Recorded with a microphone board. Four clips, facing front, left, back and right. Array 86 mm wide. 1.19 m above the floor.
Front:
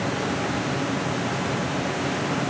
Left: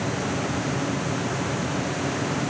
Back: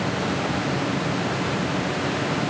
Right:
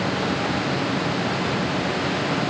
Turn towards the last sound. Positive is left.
No sound to turn to.